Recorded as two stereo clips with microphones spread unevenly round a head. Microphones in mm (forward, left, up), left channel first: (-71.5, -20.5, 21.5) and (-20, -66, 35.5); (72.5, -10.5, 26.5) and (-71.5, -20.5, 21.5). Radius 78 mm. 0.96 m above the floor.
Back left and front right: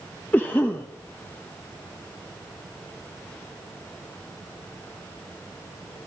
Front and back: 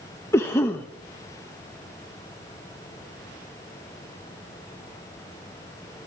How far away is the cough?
About 1.0 m.